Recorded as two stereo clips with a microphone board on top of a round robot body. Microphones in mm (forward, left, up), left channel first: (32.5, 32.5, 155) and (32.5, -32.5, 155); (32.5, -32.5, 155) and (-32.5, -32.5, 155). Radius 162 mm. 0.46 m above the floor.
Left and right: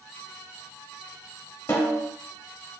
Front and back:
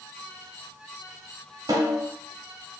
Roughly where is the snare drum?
Behind left.